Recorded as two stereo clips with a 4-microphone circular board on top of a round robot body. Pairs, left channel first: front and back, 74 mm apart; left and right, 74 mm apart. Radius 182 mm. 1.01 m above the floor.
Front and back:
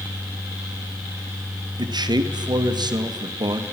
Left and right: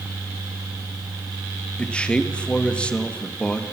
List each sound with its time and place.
1.8 s a man speaking: 165° left, 2 m